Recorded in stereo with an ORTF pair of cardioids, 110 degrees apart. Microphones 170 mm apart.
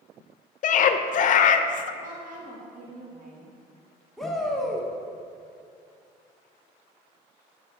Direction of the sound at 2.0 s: 50° right.